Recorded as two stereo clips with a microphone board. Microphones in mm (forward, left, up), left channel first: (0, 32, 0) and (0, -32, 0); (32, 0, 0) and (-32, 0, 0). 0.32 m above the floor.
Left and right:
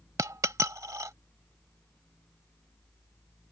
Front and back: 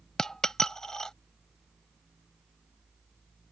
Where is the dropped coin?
80° right.